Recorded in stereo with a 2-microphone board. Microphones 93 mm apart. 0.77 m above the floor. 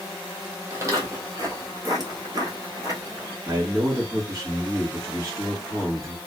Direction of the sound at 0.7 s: 30° right (ahead or behind).